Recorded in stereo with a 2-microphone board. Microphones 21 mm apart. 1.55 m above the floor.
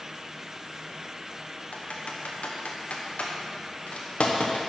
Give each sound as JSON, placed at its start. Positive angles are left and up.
{"t": 1.7, "sound": "typing on a keyboard", "side_deg": 85, "distance_m": 1.1}